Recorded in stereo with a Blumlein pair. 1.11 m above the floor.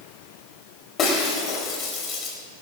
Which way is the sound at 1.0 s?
30° left.